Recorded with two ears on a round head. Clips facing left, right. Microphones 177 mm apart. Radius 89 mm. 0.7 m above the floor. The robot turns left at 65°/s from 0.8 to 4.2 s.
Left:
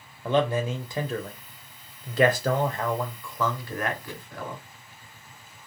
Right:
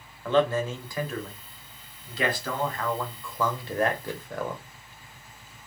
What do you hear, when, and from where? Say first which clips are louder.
0.2 s a man speaking: right 1 dB; 160° left, 0.7 m; by 4.6 s 65° right, 0.7 m